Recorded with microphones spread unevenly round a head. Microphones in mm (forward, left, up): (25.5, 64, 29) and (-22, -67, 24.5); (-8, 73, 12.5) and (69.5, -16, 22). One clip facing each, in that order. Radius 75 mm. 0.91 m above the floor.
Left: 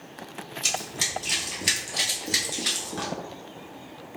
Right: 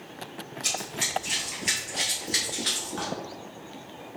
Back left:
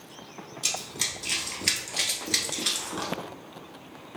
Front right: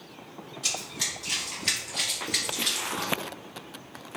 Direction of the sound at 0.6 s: 105° left.